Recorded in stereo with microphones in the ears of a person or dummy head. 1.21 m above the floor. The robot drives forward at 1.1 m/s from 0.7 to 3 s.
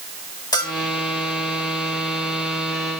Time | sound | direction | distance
0.5 | a bell | 15° left (ahead or behind) | 2 m